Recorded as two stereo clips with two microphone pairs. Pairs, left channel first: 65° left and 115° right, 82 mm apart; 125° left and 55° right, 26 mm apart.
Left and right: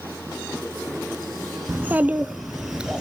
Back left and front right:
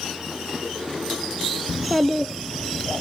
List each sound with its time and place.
1.7 s a child speaking: 130° right, 0.7 m; by 3.0 s 170° left, 1.0 m